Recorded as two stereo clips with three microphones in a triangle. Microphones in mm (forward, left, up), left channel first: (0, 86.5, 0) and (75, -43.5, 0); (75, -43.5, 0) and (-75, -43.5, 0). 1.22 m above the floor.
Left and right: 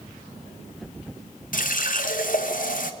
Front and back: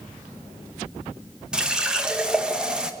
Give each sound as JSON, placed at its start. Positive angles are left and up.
{"t": 1.5, "sound": "a running tap", "azimuth_deg": 95, "distance_m": 0.7}